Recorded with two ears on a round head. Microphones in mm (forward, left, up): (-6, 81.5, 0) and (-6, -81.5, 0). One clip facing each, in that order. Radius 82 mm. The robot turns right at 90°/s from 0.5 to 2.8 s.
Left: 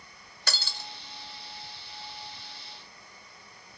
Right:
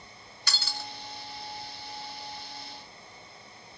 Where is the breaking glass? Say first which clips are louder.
Even; 135° left, 1.3 m; by 0.9 s 170° left, 1.3 m.